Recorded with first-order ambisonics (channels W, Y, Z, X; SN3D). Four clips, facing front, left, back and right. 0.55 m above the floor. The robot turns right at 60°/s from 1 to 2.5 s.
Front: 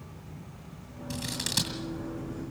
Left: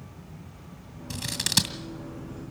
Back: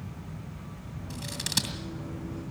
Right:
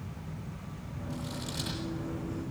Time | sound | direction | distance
1.1 | scissors | 70° left | 2.5 m